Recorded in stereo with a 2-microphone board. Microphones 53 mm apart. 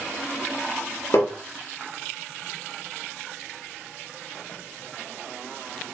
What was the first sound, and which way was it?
Tapping, 60° left (ahead or behind).